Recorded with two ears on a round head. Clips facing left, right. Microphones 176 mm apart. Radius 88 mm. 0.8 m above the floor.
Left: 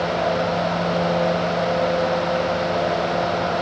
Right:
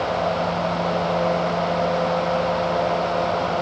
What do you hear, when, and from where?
Only background noise.